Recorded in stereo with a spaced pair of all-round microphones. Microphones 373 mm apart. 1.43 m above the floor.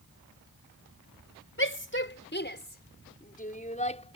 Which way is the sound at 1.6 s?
35° left (ahead or behind).